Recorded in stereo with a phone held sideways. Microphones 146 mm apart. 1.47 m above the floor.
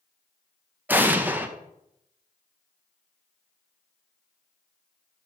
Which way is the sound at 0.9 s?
10° right (ahead or behind).